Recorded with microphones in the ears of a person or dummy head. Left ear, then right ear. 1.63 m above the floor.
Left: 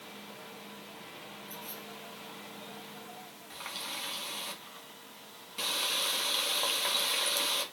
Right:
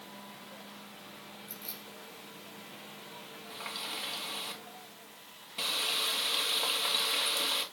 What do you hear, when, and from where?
1.5 s keys jangling: 30° right (ahead or behind), 4.5 m
3.5 s a running tap: centre (ahead or behind), 1.9 m